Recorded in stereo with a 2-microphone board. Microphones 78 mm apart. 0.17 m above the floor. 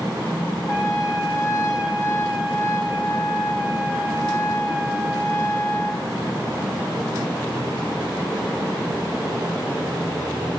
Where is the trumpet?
40° left (ahead or behind), 2.5 m.